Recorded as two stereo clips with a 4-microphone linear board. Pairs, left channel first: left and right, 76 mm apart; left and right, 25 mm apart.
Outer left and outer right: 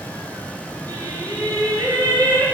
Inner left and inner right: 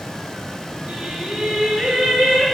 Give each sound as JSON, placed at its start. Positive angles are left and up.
{"t": 0.9, "sound": "singing", "side_deg": -50, "distance_m": 2.5}